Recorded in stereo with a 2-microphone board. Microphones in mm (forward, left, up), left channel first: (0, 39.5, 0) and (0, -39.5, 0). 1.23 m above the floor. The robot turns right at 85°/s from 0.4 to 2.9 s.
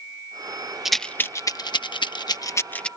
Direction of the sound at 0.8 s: 5° right (ahead or behind).